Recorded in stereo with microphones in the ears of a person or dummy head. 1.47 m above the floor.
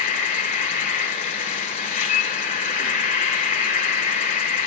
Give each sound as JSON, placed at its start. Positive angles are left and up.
{"t": 0.0, "sound": "an insect", "side_deg": 45, "distance_m": 2.0}